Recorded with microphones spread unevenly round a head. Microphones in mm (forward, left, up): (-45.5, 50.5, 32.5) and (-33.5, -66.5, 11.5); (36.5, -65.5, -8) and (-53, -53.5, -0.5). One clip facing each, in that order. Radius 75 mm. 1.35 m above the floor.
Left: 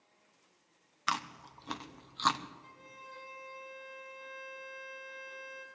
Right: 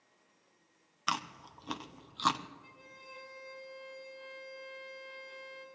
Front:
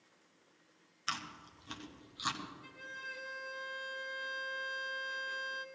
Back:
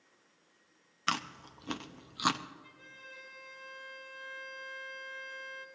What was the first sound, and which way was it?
Chewing, 165° right.